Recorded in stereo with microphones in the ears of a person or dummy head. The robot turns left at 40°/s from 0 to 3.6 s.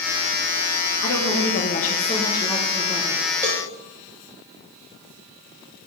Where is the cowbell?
10° right (ahead or behind), 2 m; by 3.6 s 20° right (ahead or behind), 2 m.